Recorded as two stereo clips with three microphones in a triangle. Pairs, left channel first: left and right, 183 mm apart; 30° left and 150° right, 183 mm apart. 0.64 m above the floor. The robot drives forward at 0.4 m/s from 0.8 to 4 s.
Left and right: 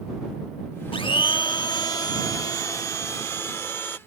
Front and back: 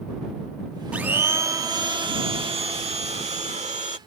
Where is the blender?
130° left; by 4.0 s 165° left.